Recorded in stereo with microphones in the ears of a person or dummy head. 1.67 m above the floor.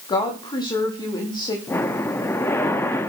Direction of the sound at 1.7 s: 15° left (ahead or behind).